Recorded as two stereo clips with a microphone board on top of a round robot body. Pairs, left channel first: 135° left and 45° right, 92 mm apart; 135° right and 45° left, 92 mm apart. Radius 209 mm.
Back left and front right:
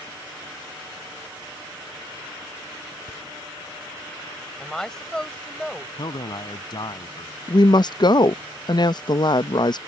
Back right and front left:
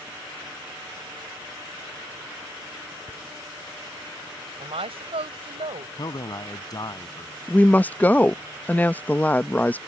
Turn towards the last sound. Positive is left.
turn(degrees=155)